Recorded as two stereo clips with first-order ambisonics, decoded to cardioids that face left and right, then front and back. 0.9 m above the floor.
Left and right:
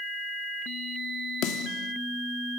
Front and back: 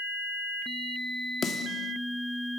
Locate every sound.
1.4 s a snare drum: 60° left, 1.4 m